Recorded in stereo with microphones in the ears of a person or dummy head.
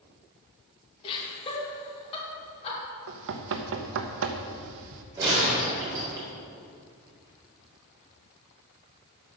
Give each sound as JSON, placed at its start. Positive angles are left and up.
{"t": 1.0, "sound": "laughter", "side_deg": 25, "distance_m": 2.5}
{"t": 3.1, "sound": "knocking", "side_deg": -70, "distance_m": 0.8}
{"t": 5.2, "sound": "a gunshot", "side_deg": -20, "distance_m": 4.0}